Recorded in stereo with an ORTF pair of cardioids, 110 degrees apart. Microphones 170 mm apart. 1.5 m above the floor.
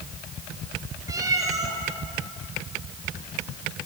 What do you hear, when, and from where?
1.1 s a cat meowing: 20° right, 4.5 m